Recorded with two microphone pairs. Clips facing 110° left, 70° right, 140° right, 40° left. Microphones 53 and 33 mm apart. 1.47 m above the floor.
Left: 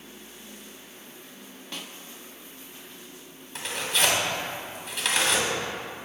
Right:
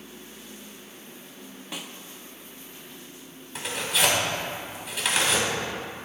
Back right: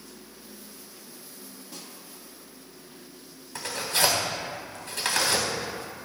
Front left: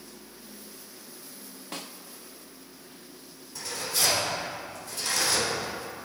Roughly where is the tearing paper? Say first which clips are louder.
Right 1 dB, back right 4 dB; behind.